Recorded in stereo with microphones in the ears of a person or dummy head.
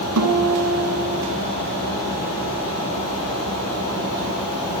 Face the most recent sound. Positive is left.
turn(degrees=-75)  # may be behind; listen again after turning